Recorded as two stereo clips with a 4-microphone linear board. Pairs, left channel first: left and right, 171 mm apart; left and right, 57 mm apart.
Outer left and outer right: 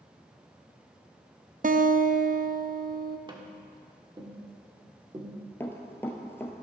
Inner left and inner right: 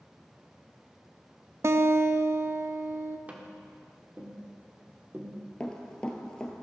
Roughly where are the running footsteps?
Centre.